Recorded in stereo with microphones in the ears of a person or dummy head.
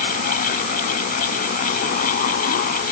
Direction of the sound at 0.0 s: 45° left (ahead or behind).